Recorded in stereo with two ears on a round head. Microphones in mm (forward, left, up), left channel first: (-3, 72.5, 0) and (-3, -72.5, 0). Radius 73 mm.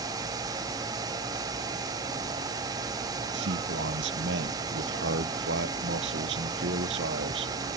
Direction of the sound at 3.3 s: 80° right.